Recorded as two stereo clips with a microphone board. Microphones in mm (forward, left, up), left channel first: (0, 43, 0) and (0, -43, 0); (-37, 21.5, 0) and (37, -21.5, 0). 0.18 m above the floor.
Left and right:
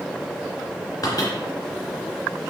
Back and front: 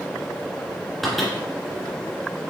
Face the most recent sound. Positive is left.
turn(degrees=60)